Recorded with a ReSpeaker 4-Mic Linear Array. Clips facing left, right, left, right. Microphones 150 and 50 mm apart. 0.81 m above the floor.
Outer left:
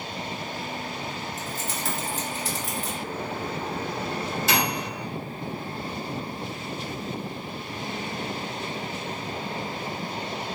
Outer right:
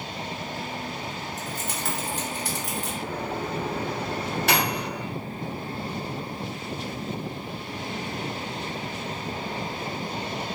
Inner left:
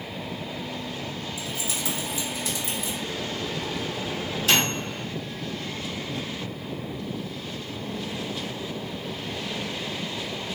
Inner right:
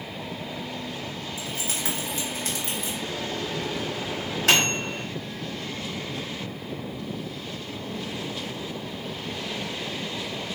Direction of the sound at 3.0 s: 65° right (ahead or behind).